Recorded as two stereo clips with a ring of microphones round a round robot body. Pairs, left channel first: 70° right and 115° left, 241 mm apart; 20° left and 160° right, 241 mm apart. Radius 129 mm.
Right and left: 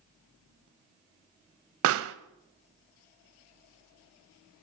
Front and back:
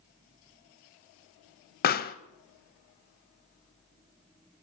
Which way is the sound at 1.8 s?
75° left.